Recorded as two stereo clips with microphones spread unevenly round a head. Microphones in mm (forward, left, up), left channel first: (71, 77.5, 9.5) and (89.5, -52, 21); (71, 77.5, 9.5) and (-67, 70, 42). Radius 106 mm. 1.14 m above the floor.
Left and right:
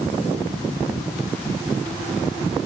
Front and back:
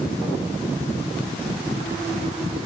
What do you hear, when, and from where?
Only background noise.